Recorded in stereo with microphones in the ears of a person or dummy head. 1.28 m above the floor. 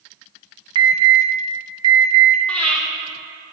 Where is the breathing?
10° left (ahead or behind), 1.4 m.